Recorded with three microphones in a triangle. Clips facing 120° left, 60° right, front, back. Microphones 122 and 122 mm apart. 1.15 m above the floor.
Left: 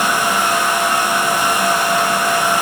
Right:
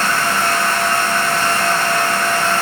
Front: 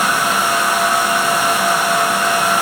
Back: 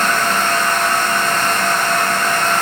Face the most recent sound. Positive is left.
No sound to turn to.